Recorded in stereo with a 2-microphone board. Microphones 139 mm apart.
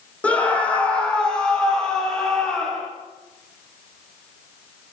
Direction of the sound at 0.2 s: 10° left (ahead or behind).